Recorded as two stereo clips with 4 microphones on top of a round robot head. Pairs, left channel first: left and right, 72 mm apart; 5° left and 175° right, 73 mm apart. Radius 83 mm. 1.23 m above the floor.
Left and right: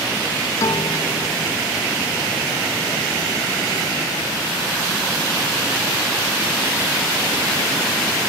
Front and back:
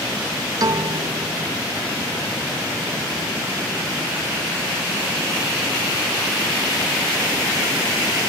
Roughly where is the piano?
Behind left.